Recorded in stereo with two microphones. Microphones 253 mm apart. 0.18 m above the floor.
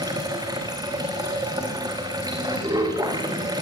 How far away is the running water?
About 4.5 m.